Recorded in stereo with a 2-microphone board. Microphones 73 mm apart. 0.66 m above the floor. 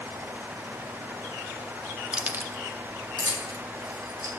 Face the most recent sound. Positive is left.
turn(degrees=-75)  # may be behind; listen again after turning